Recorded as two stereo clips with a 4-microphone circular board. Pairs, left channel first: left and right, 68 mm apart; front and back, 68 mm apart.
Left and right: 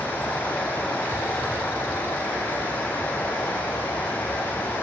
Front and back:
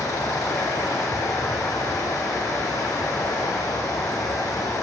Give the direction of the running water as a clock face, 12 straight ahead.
11 o'clock.